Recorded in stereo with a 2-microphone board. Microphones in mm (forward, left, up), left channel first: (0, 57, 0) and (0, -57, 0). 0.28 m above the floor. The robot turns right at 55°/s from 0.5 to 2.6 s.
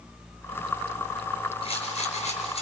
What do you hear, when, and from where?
1.6 s a rattle: 50° left, 5 m; by 2.6 s 105° left, 5 m